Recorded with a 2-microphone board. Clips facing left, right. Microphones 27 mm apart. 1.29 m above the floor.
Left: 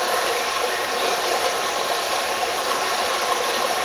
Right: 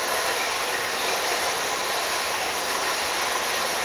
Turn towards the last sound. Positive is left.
turn(degrees=70)  # may be behind; listen again after turning